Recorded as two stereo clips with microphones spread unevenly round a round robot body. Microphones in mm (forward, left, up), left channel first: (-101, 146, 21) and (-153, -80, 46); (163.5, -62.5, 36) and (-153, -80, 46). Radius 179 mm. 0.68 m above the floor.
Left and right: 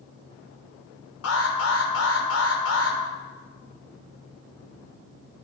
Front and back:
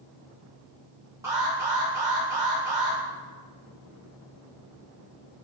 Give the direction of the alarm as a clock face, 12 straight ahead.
9 o'clock.